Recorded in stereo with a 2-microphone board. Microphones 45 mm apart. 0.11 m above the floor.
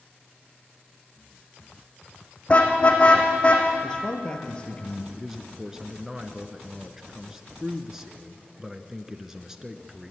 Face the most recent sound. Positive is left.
turn(degrees=-10)  # may be behind; listen again after turning